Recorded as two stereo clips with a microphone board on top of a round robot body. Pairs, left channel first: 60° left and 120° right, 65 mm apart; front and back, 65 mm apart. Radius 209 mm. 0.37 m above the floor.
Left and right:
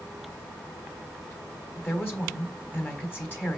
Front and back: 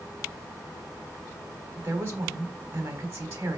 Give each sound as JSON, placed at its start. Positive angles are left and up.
{"t": 1.8, "sound": "a woman speaking", "azimuth_deg": 125, "distance_m": 2.5}